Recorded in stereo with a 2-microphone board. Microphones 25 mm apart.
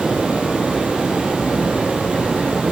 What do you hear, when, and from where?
0.0 s running water: 70° right (ahead or behind), 1.3 m